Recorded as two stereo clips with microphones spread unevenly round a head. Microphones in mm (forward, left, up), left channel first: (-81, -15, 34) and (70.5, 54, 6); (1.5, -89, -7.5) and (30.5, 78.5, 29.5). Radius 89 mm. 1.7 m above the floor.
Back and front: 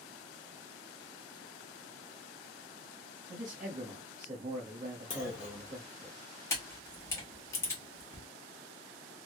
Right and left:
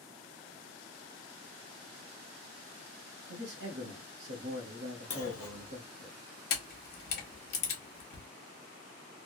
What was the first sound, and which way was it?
A man speaking, 75° left.